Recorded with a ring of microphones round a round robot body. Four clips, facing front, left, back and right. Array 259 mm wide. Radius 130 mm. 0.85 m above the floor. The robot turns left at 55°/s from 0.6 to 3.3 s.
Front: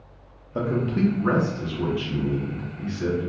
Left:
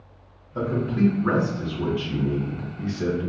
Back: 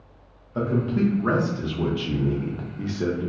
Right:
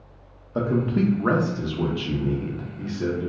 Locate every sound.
0.6 s a man speaking: 60° right, 0.6 m; by 3.3 s 155° left, 0.6 m